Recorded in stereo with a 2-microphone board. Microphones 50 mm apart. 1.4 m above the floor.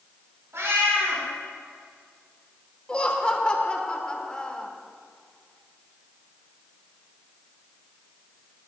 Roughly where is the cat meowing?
Right.